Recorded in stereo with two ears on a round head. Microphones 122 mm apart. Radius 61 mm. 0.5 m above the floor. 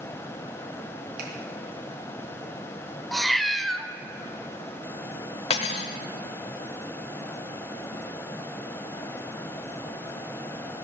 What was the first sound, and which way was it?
A finger snap, 70° right (ahead or behind).